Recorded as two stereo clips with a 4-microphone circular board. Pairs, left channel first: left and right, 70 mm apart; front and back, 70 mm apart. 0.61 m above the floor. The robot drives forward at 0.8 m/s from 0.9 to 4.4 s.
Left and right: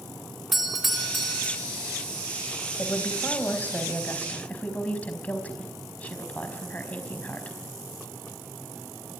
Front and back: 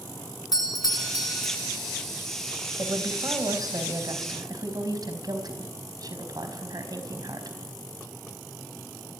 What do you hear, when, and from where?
0.5 s a doorbell: 5° right, 4 m
2.8 s a woman speaking: 150° left, 3.5 m; by 7.6 s 160° left, 4.5 m